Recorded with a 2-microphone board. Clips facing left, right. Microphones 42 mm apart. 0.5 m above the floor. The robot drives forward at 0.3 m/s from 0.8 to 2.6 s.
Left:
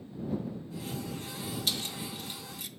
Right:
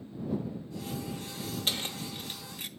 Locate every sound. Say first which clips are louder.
1.7 s keys jangling: right 2 dB; 35° right (ahead or behind), 0.9 m; by 2.7 s 40° right (ahead or behind), 0.8 m